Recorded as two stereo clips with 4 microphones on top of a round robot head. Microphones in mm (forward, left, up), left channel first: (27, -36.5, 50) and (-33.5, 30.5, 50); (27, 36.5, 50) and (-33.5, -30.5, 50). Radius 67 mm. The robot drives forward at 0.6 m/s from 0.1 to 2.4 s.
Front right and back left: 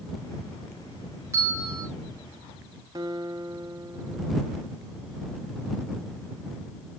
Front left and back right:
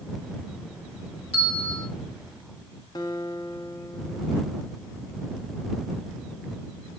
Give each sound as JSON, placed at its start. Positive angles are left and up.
{"t": 1.3, "sound": "a bell", "azimuth_deg": 70, "distance_m": 9.5}
{"t": 3.0, "sound": "a guitar", "azimuth_deg": 90, "distance_m": 1.3}